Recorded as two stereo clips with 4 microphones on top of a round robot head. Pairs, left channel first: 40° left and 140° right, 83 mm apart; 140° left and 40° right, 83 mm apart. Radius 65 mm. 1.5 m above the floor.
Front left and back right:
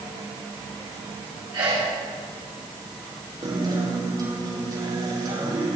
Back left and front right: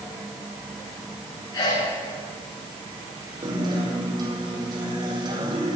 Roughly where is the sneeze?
Behind.